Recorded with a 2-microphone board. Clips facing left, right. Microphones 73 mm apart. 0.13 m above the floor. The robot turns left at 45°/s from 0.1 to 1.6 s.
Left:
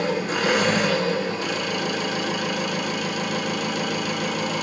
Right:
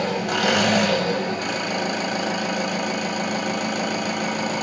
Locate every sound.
0.0 s an engine running: 75° right, 1.2 m; by 4.6 s 145° right, 1.2 m